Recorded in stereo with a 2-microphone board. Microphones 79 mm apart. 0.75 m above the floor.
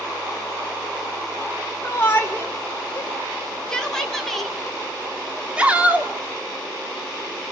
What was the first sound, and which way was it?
A shout, 30° left (ahead or behind).